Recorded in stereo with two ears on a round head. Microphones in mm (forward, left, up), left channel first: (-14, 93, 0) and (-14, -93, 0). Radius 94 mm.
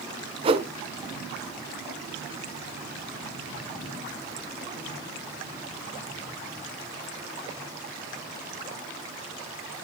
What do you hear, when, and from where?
0.4 s a whoosh: 25° right (ahead or behind), 1.3 m